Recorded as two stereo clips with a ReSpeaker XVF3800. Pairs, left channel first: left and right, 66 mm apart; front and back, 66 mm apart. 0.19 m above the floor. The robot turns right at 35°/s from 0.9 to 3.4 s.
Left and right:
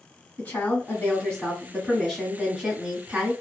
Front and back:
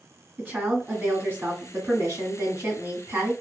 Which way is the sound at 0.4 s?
135° left.